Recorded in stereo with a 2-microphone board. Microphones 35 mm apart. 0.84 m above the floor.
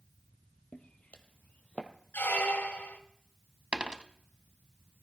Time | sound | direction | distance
0.7 | footsteps | 35° left (ahead or behind) | 1.3 m
2.1 | a squeak | 65° left (ahead or behind) | 1.1 m
3.7 | a dropped coin | 30° right (ahead or behind) | 0.7 m